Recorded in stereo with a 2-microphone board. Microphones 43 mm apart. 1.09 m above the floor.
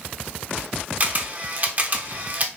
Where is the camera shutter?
35° right (ahead or behind), 0.7 m.